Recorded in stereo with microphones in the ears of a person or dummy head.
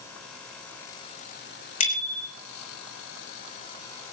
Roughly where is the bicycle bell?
Left.